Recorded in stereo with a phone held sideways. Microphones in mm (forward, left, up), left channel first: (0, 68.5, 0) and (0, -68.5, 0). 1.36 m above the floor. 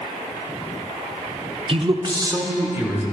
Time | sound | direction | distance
1.7 | a man speaking | 40° right (ahead or behind) | 0.6 m